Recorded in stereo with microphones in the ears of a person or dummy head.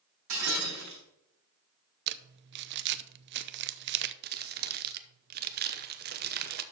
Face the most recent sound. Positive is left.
turn(degrees=-50)  # may be behind; listen again after turning